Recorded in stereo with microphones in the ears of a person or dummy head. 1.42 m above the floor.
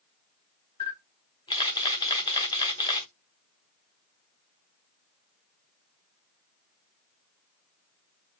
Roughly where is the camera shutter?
Left.